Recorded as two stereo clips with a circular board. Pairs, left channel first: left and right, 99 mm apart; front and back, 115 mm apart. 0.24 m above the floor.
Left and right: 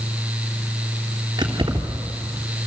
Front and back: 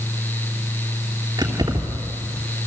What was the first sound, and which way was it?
Keys jangling, 130° right.